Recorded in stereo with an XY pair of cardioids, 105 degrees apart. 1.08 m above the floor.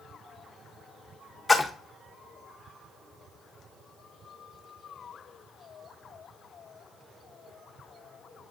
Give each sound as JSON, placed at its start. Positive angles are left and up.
{"t": 1.5, "sound": "a splash", "azimuth_deg": 20, "distance_m": 0.6}